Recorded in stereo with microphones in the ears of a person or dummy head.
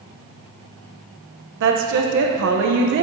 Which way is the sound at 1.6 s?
65° right (ahead or behind).